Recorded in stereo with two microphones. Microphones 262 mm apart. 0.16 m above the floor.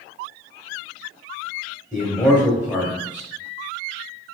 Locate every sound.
1.9 s a man speaking: 5° left (ahead or behind), 1.7 m